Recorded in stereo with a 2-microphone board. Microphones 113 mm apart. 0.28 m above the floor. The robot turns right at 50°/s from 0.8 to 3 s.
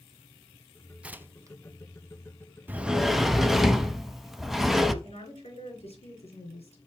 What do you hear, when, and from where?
1.0 s tearing paper: 10° right (ahead or behind), 0.5 m; by 1.6 s 35° right (ahead or behind), 0.5 m
2.7 s a sliding door: 20° right (ahead or behind), 0.6 m; by 4.9 s 5° right (ahead or behind), 0.6 m
5.0 s a woman speaking: 75° left (ahead or behind), 4.5 m